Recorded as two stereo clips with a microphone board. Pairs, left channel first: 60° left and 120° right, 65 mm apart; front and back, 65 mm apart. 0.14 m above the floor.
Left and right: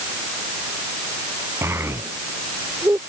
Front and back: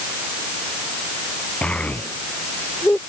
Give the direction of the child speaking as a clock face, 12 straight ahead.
2 o'clock.